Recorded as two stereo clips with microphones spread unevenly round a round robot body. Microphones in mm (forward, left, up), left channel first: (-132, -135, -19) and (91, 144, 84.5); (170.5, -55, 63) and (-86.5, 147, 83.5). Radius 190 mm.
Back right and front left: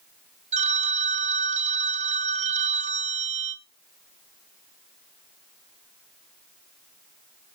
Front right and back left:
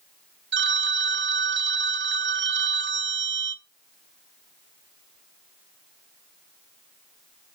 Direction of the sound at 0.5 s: 135° left.